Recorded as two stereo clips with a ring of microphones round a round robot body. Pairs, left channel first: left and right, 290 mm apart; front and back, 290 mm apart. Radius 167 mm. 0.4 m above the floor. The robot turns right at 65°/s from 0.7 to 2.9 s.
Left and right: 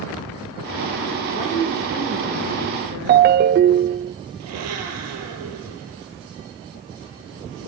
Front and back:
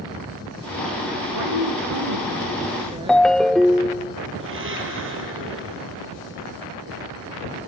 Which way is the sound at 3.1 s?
85° right.